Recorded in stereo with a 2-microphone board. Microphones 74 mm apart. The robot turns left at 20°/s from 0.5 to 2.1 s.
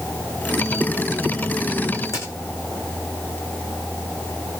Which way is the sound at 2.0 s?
50° left (ahead or behind).